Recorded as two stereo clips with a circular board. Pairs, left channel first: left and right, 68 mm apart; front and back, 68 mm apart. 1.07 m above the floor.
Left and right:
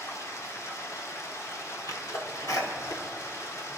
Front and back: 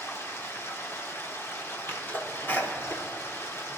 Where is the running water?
50° left, 1.7 m.